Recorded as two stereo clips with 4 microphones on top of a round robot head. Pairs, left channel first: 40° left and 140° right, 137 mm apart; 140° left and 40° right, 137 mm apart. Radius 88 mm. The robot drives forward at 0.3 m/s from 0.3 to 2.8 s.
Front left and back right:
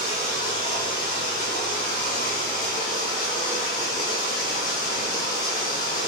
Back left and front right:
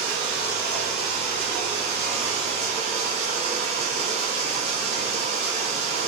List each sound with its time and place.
0.0 s running water: 5° left, 8.5 m